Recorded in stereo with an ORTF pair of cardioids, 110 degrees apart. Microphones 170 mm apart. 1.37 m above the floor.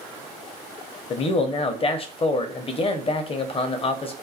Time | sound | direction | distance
1.1 | a man speaking | 35° left | 0.6 m